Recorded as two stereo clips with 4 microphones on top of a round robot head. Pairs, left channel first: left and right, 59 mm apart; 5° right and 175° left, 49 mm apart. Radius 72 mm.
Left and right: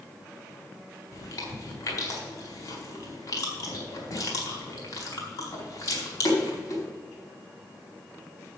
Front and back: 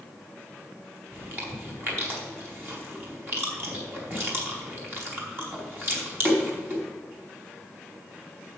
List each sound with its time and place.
1.1 s chewing: 125° left, 4.5 m